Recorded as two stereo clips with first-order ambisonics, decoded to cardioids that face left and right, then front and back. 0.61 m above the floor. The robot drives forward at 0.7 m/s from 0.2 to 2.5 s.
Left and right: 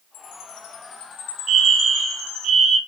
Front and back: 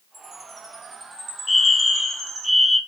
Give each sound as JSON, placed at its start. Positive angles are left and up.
{"t": 0.1, "sound": "a chime", "azimuth_deg": 100, "distance_m": 4.5}
{"t": 1.5, "sound": "a fire alarm", "azimuth_deg": -75, "distance_m": 2.5}